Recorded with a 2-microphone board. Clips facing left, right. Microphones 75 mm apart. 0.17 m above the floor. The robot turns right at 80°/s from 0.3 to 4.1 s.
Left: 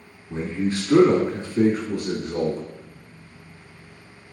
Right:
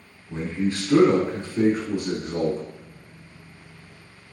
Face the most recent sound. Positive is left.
turn(degrees=10)